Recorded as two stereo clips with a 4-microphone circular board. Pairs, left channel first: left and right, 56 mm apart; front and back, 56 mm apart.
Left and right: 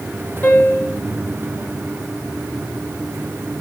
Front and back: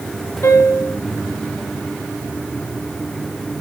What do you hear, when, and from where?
0.4 s a piano: 35° left, 2.5 m